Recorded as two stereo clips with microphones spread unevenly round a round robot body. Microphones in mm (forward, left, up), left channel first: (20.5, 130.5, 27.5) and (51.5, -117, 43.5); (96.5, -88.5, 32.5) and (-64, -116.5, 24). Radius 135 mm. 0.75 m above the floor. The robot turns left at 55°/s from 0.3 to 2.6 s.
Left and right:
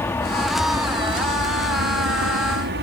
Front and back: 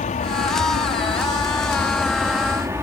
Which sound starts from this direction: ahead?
An aircraft, at 0.0 s.